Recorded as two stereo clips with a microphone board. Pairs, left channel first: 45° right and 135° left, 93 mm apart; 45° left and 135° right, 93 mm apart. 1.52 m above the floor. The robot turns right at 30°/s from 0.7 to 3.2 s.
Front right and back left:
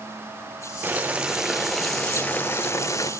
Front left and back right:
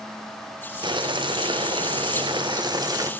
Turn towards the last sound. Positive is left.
turn(degrees=-90)